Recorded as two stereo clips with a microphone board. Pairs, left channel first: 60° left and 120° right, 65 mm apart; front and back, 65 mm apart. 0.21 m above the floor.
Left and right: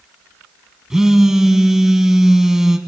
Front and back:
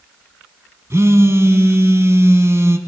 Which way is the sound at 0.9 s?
160° left.